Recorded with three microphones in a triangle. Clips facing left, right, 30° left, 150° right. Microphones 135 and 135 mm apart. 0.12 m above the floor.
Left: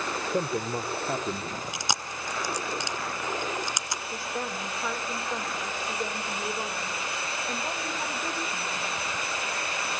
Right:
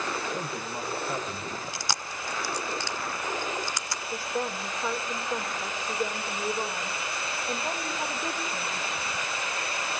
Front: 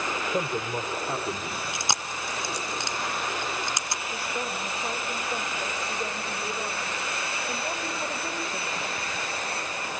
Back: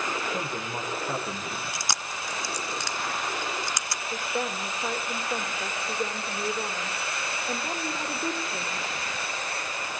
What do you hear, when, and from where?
0.3 s a man speaking: 100° left, 4 m; by 1.5 s 120° left, 4 m
1.7 s chewing: 50° left, 0.9 m
4.1 s a woman speaking: 175° right, 6.5 m